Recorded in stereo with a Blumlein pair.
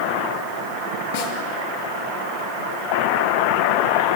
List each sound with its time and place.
1.1 s a snare drum: 50° left, 2.5 m